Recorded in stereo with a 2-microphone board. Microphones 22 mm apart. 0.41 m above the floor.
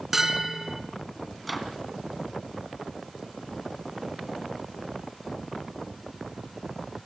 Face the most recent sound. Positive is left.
turn(degrees=0)  # may be behind; listen again after turning